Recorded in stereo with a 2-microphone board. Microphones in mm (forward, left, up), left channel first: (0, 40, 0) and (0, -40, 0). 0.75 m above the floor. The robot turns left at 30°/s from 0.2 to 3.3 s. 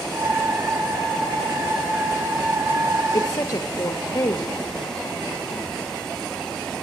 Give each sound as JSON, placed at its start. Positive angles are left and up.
{"t": 3.1, "sound": "a woman speaking", "side_deg": 35, "distance_m": 0.8}